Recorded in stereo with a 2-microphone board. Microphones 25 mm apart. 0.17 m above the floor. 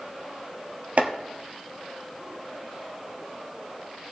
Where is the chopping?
50° right (ahead or behind), 1.6 m.